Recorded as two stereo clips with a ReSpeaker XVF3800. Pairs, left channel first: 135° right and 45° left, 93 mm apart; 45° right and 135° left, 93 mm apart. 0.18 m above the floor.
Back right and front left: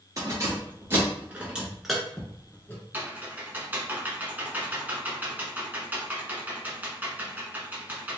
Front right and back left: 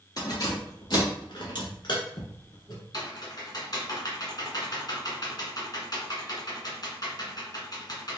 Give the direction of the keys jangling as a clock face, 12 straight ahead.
12 o'clock.